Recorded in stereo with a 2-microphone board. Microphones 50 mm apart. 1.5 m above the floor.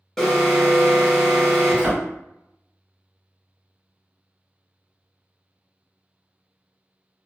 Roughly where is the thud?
Centre.